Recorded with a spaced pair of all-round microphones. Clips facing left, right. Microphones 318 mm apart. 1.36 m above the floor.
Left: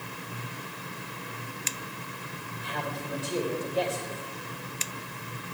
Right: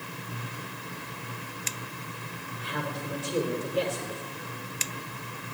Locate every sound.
2.6 s a man speaking: 55° right (ahead or behind), 4 m